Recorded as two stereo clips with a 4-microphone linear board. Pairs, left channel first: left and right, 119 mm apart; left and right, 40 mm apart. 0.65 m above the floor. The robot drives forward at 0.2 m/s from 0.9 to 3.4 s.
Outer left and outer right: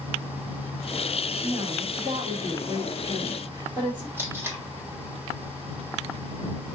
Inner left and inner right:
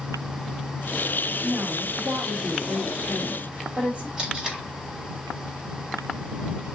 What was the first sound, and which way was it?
A woman speaking, 45° right (ahead or behind).